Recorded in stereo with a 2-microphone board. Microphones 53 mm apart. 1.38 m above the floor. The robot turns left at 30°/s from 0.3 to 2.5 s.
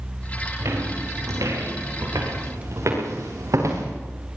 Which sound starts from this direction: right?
Footsteps, at 0.6 s.